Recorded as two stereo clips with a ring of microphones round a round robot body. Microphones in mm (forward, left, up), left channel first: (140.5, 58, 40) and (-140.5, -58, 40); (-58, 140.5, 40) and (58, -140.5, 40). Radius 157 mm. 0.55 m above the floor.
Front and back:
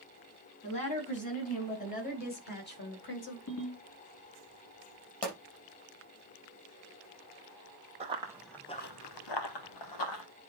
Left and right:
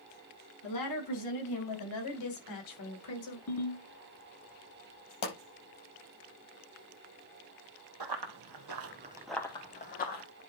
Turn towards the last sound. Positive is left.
turn(degrees=50)